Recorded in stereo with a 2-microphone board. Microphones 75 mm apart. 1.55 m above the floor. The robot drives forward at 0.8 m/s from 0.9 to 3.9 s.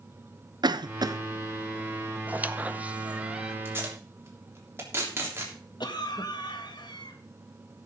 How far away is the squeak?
About 0.6 m.